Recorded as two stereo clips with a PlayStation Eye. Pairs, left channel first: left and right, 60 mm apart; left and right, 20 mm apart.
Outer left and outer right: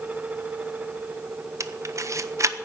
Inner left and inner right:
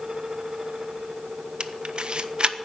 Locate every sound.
1.6 s a camera shutter: 55° right (ahead or behind), 0.8 m